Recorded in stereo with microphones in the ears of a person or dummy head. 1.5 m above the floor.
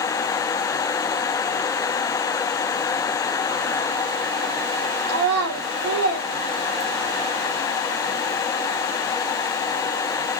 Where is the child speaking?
60° right (ahead or behind), 0.8 m.